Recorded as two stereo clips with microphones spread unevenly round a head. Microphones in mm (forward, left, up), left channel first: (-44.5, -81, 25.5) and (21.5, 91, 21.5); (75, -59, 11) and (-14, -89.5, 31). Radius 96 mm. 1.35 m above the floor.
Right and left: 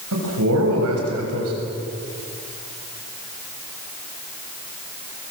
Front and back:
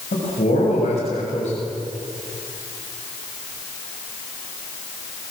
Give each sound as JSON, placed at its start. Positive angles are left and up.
{"t": 0.1, "sound": "a man speaking", "azimuth_deg": 55, "distance_m": 7.0}